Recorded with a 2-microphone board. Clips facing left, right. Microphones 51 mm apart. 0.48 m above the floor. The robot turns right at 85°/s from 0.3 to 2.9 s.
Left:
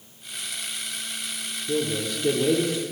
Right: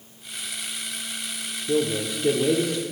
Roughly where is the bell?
I don't hear a bell.